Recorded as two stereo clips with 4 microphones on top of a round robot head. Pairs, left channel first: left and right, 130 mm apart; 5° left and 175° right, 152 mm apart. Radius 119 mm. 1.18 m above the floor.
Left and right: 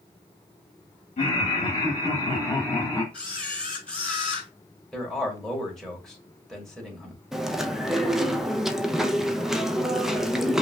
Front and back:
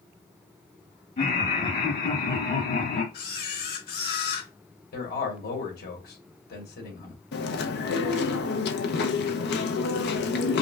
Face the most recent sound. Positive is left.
turn(degrees=-5)